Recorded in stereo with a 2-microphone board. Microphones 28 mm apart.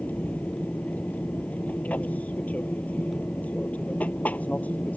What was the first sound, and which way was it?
An aircraft, 60° left (ahead or behind).